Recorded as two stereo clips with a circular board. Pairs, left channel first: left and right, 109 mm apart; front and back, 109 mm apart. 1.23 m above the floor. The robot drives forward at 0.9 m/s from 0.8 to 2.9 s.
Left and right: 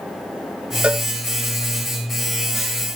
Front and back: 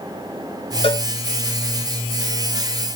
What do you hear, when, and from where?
0.8 s a cowbell: 15° right, 1.1 m